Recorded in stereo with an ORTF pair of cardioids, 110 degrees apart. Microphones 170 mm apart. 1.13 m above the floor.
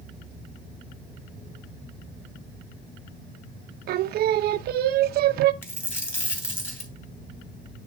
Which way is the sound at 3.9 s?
70° right.